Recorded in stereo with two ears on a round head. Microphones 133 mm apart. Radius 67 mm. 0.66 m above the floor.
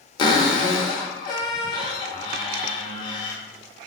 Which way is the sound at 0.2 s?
30° left (ahead or behind).